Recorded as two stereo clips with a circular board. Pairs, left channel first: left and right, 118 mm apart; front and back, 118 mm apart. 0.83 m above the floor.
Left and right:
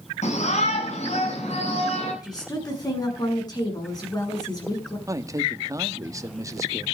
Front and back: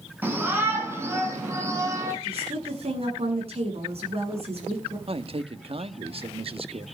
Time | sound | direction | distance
0.2 | a shout | 105° left | 7.5 m
2.2 | a woman speaking | 145° left | 8 m
5.1 | a man speaking | 150° right | 1.4 m